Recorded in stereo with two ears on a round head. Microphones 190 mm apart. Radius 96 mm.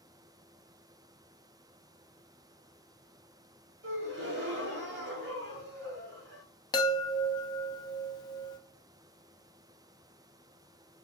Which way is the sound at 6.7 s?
20° left (ahead or behind).